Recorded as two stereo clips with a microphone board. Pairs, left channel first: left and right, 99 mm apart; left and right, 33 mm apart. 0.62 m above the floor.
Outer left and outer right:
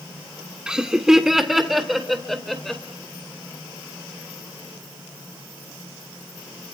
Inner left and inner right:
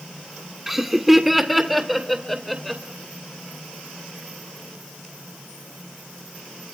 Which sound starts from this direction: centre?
Laughter, at 0.7 s.